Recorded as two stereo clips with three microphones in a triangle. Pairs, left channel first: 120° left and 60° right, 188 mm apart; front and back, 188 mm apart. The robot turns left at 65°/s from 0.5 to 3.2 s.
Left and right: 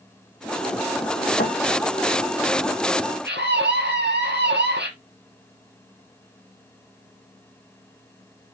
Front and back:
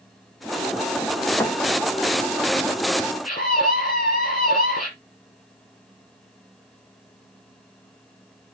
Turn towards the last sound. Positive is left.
turn(degrees=-45)